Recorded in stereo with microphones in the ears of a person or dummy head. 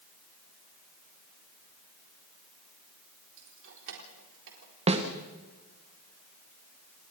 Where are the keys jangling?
75° right (ahead or behind), 4 m.